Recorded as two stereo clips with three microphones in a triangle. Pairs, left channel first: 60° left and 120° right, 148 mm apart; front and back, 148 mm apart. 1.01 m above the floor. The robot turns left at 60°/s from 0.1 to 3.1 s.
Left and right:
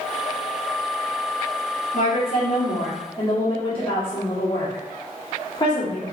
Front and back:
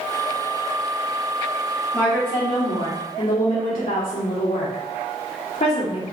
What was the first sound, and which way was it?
A woman speaking, 75° left.